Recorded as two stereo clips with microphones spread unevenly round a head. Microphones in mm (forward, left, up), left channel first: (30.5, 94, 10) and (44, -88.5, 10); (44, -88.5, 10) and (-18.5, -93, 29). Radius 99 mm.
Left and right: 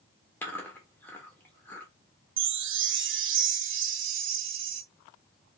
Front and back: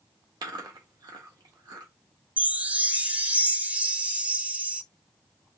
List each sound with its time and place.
0.4 s chewing: 175° left, 1.4 m
2.4 s a chime: 100° right, 0.8 m